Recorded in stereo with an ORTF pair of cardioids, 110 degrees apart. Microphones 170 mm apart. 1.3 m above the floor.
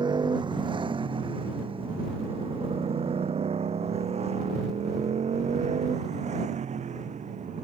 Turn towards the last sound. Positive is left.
turn(degrees=-45)